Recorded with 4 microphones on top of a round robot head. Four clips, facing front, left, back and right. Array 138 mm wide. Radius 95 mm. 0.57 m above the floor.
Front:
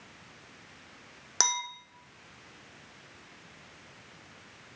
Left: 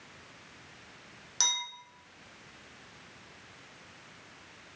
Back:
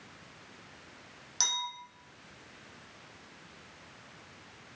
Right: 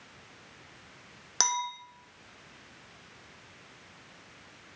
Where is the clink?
40° right, 0.8 m.